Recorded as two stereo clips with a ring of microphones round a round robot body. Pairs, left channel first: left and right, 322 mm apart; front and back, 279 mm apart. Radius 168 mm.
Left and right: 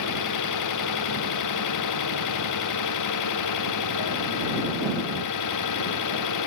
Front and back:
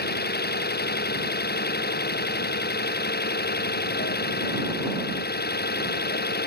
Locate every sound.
0.0 s an engine running: 55° left